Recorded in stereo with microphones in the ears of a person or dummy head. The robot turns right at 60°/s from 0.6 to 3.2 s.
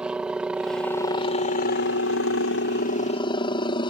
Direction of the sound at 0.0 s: 5° right.